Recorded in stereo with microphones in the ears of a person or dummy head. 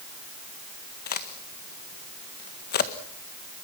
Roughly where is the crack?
Left.